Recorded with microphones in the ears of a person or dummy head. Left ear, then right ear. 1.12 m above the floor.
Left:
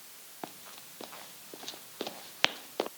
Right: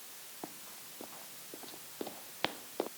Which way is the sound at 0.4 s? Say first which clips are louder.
Left 5 dB; 65° left (ahead or behind).